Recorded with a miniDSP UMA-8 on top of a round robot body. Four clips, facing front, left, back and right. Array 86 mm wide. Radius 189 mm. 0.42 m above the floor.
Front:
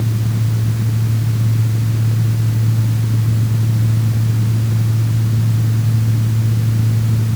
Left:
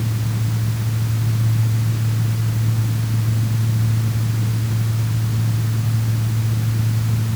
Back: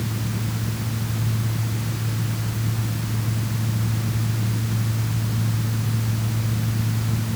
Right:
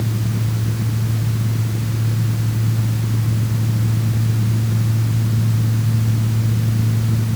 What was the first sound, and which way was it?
Only background noise.